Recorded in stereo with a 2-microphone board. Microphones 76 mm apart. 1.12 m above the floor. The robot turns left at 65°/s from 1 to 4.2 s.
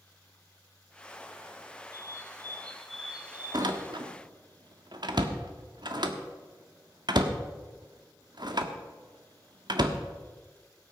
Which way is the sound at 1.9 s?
65° left.